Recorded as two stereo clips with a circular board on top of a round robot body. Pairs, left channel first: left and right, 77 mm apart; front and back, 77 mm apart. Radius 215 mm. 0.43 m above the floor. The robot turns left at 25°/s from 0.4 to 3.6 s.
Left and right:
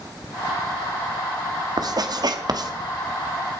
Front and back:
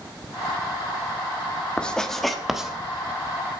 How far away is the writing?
About 1.6 m.